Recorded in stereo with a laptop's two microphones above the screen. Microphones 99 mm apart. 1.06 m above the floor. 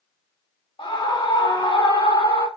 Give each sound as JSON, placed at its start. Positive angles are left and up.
{"t": 0.8, "sound": "a scream", "side_deg": 80, "distance_m": 3.5}